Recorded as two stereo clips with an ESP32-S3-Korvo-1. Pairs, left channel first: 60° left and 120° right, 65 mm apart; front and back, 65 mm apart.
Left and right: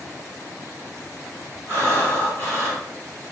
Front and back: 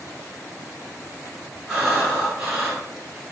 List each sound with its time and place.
1.7 s breathing: 110° left, 1.6 m